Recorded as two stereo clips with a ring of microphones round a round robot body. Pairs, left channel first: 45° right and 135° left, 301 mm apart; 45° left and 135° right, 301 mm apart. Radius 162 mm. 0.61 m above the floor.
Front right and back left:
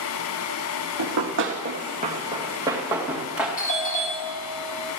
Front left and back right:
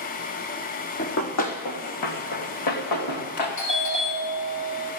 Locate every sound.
1.0 s running footsteps: 100° left, 1.9 m; by 3.5 s 50° left, 4.5 m
3.6 s a doorbell: 20° left, 5.5 m